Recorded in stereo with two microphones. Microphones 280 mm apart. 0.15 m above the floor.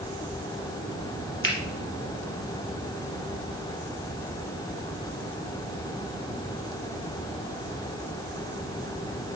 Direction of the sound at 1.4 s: 45° left (ahead or behind).